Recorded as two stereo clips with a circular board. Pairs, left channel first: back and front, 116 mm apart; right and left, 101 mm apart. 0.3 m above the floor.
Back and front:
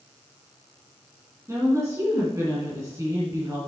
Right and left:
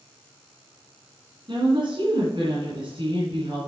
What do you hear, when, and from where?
1.5 s a woman speaking: 60° left, 2.5 m